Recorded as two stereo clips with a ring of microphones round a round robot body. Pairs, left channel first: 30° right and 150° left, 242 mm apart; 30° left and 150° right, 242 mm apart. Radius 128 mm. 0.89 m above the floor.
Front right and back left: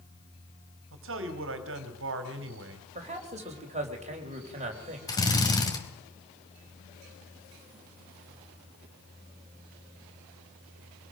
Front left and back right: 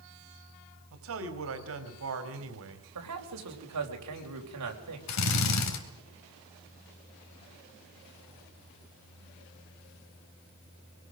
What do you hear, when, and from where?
0.9 s a man speaking: 175° right, 3 m
3.0 s a man speaking: 150° right, 4 m
5.1 s a drill: 45° left, 3 m